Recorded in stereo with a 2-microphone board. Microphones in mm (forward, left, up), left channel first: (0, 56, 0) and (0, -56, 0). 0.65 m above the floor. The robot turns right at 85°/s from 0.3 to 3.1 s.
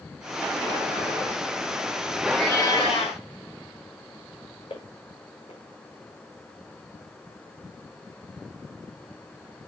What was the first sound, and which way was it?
A cat meowing, 5° right.